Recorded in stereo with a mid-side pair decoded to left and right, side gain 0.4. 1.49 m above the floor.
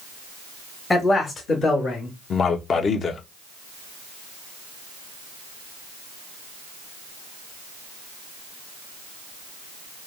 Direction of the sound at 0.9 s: 35° left.